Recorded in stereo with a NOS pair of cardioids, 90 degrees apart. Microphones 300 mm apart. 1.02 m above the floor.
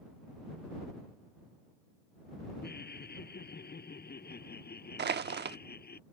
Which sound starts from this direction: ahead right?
Crushing, at 5.0 s.